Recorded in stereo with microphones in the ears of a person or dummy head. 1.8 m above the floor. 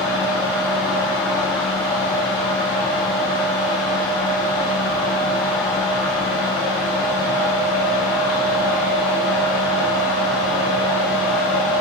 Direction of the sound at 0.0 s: 5° right (ahead or behind).